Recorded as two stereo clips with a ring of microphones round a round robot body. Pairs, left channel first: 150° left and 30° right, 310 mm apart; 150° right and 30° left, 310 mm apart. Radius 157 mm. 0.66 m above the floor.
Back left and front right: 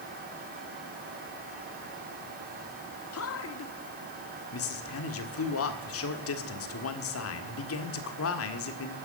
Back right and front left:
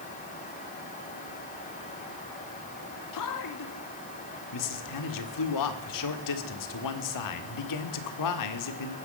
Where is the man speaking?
165° right, 1.8 m.